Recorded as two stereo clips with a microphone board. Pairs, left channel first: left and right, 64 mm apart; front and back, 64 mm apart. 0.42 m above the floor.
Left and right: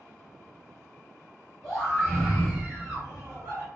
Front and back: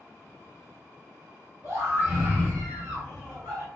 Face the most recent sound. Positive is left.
turn(degrees=-90)